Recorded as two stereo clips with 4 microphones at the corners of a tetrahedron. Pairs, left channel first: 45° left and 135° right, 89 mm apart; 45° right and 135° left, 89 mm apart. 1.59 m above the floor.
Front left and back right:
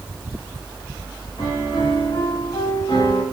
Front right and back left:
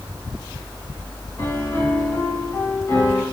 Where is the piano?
10° left, 3.5 m.